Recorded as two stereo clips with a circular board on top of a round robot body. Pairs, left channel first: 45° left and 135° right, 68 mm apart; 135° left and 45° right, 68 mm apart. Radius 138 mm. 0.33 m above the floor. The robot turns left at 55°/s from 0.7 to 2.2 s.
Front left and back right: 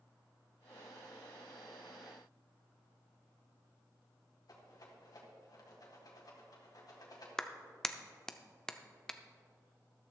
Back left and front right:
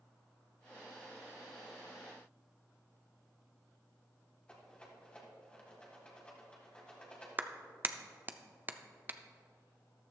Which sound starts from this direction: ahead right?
A clap, at 7.4 s.